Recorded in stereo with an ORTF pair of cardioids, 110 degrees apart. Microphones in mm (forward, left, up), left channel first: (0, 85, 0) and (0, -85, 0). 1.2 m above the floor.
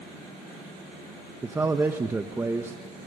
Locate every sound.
1.4 s a man speaking: 15° right, 1.3 m